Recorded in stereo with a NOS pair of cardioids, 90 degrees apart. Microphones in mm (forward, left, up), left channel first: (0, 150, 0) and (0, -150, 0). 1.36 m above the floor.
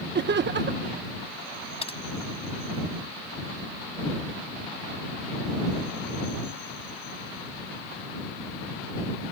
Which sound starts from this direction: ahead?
Typing on a keyboard, at 1.8 s.